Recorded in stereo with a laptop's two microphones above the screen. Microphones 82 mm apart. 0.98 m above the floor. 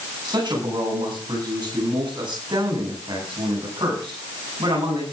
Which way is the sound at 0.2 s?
65° right (ahead or behind).